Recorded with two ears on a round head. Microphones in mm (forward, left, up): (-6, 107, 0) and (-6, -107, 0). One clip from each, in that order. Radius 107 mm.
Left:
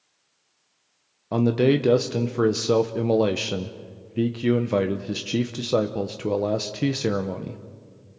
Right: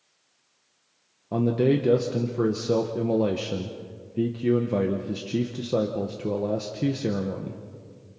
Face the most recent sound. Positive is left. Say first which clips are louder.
# left 2 dB
turn(degrees=40)  # may be behind; listen again after turning